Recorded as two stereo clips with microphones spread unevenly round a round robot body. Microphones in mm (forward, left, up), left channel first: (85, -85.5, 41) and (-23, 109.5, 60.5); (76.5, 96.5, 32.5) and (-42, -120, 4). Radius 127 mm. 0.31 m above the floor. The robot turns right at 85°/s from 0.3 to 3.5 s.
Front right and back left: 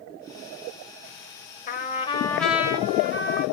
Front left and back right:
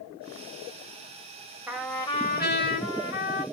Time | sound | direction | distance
1.7 | a trumpet | 45° right | 1.0 m